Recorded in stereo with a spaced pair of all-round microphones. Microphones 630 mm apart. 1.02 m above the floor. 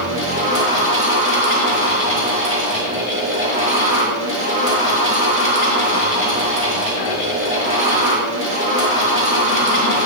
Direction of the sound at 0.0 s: 20° right (ahead or behind).